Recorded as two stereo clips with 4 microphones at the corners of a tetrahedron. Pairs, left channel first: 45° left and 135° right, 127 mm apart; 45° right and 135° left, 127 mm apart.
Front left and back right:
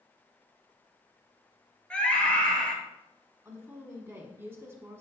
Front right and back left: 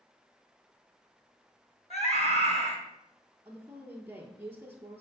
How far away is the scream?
About 2 m.